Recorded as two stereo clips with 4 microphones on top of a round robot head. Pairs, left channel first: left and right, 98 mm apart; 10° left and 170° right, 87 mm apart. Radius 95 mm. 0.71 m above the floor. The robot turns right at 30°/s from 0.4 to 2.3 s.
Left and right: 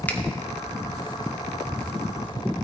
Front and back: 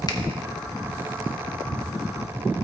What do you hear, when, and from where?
0.1 s a finger snap: 20° left, 1.3 m